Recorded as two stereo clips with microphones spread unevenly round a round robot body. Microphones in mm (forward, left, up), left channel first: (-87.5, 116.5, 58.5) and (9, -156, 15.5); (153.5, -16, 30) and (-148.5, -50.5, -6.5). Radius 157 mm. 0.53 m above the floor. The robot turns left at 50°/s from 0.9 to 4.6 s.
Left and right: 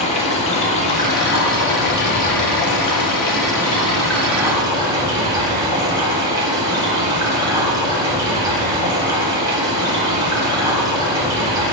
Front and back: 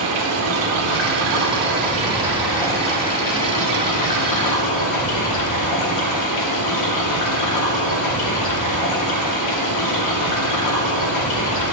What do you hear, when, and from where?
0.0 s running water: straight behind, 1.4 m; by 11.7 s 5° right, 1.4 m